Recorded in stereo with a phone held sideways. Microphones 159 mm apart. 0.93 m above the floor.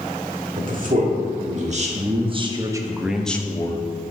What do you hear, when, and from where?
0.6 s a man speaking: 60° right (ahead or behind), 2 m; by 3.8 s 30° left (ahead or behind), 0.9 m